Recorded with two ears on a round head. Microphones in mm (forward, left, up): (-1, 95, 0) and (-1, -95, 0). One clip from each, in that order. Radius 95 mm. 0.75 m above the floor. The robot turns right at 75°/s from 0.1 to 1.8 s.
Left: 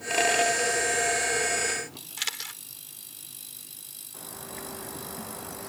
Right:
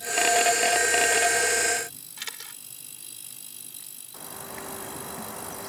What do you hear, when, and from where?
2.2 s a camera shutter: 30° left (ahead or behind)
4.1 s a bird: 15° right (ahead or behind)